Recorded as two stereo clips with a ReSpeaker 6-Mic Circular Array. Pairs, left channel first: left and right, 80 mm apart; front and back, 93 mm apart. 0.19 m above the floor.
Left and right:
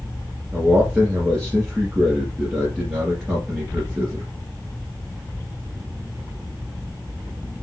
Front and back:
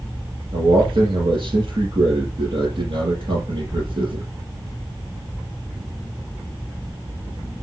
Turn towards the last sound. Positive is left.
turn(degrees=-170)